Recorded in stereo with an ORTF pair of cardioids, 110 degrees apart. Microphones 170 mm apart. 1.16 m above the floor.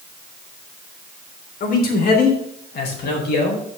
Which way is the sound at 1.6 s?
55° left.